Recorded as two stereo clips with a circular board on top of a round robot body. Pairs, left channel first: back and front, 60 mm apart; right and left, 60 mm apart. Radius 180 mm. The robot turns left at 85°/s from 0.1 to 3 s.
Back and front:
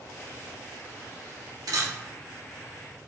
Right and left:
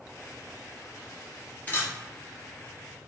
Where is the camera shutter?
20° right, 0.6 m; by 1.9 s 40° right, 0.6 m.